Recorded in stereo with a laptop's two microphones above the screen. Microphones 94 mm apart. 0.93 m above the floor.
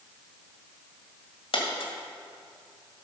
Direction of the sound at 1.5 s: 80° left.